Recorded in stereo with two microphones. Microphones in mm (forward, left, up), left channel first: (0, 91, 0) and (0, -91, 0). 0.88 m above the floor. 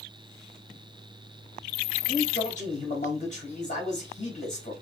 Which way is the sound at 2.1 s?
40° left (ahead or behind).